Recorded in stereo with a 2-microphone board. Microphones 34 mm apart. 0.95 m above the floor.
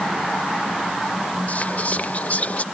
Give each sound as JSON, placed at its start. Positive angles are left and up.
{"t": 1.5, "sound": "whispering", "side_deg": 40}